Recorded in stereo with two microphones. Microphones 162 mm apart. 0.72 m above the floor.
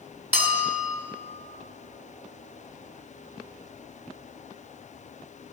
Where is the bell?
70° right (ahead or behind), 2.5 m.